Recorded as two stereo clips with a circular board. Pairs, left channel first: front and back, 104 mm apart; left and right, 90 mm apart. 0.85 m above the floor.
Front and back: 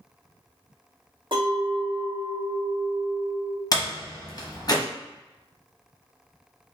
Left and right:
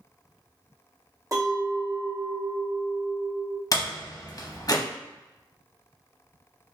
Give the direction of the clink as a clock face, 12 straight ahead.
5 o'clock.